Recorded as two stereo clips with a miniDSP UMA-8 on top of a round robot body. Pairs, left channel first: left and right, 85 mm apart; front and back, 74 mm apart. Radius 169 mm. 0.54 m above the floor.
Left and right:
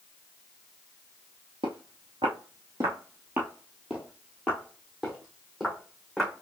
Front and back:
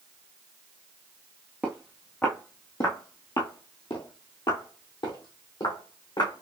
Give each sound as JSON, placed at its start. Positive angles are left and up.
{"t": 1.6, "sound": "footsteps", "azimuth_deg": -110, "distance_m": 0.6}